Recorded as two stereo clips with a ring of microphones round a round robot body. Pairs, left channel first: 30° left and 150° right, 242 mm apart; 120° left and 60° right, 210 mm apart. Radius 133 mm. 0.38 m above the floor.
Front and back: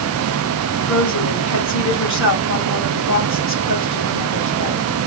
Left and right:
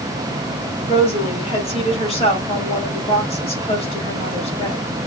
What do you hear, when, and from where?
0.9 s a woman speaking: 60° left, 2 m